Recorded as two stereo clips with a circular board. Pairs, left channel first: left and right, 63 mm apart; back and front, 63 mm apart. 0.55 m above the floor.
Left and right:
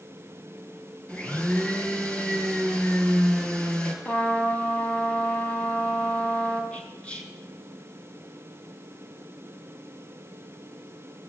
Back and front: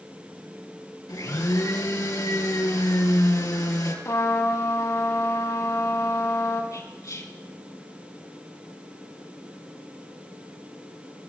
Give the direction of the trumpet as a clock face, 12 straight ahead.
7 o'clock.